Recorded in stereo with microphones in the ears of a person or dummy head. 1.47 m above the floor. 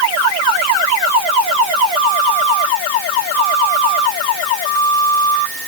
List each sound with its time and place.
Only background noise.